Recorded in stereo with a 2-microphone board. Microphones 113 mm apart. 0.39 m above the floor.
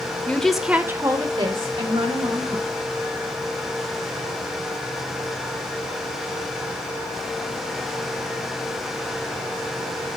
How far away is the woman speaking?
About 0.9 m.